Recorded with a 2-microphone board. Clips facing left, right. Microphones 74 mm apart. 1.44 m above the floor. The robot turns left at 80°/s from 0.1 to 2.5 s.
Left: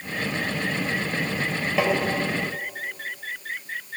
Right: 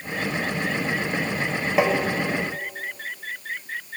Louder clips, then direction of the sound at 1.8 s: Right 2 dB; 15° right (ahead or behind).